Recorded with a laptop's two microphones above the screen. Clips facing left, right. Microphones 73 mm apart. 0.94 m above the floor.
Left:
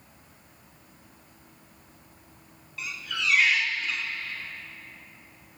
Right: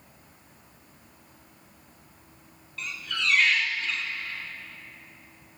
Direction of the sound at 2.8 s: 5° left (ahead or behind).